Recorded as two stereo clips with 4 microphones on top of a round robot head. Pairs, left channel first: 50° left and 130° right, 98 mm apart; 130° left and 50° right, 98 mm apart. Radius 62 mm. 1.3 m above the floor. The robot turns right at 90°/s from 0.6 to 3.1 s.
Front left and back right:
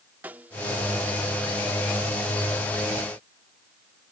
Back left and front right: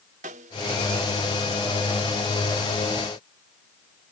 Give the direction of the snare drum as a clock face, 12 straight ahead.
2 o'clock.